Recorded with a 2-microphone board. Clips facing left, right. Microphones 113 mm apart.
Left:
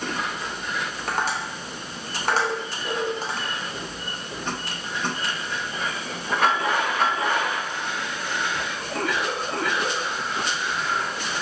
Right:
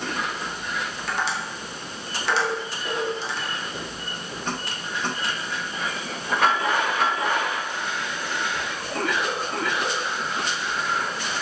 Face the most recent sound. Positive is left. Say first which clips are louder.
# left 2 dB
turn(degrees=45)  # may be behind; listen again after turning